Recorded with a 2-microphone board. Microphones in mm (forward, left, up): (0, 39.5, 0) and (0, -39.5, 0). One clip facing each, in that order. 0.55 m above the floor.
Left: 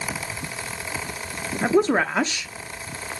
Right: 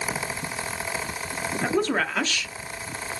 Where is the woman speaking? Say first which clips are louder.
Left 5 dB; 25° left (ahead or behind), 0.7 m.